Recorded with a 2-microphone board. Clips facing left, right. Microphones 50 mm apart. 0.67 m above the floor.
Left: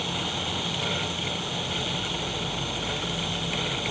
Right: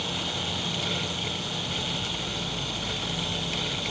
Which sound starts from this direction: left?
An insect, at 0.0 s.